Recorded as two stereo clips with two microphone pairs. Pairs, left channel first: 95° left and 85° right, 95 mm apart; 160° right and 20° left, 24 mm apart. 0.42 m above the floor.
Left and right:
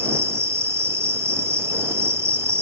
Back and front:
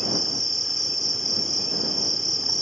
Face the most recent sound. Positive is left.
turn(degrees=-85)